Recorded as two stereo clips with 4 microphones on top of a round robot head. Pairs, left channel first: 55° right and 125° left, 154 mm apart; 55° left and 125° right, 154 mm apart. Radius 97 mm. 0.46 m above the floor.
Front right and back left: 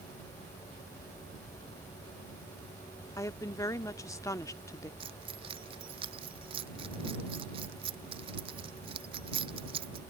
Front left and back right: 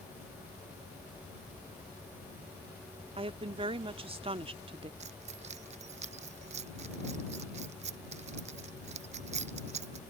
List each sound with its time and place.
3.2 s a woman speaking: 110° right
5.0 s keys jangling: 175° right